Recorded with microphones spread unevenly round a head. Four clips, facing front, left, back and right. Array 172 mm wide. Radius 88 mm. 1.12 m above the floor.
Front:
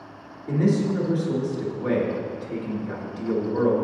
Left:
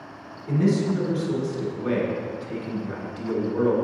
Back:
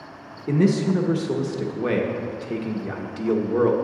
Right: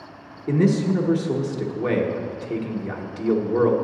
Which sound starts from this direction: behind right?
A man speaking, at 0.5 s.